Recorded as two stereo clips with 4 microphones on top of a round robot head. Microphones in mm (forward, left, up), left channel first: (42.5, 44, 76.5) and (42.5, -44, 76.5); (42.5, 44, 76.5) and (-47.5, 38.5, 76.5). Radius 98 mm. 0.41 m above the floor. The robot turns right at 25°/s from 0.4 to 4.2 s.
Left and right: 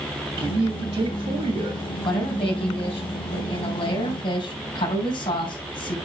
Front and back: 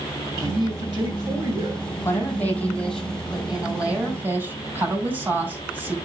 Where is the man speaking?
145° right, 2.5 m; by 1.8 s 110° right, 2.5 m.